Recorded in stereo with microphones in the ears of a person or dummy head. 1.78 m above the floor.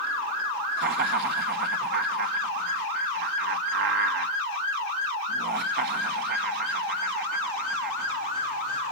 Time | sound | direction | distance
0.8 | laughter | 60° right (ahead or behind) | 1.3 m